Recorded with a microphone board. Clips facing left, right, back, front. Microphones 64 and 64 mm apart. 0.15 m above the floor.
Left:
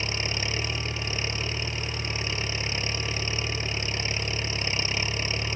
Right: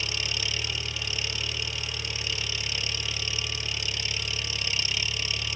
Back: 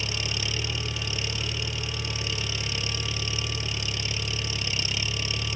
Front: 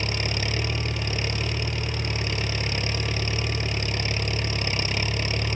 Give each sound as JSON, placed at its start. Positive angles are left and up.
{"t": 0.0, "sound": "an engine running", "azimuth_deg": 35}